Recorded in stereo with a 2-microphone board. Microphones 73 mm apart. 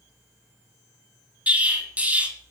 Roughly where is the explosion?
Right.